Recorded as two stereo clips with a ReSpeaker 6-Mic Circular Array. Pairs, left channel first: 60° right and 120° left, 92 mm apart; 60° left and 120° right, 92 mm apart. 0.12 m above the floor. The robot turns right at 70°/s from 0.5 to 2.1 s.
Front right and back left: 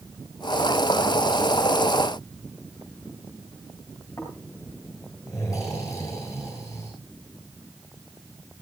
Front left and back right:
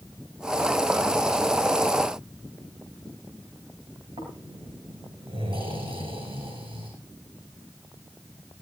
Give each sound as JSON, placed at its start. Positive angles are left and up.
{"t": 4.2, "sound": "snoring", "azimuth_deg": -115, "distance_m": 8.5}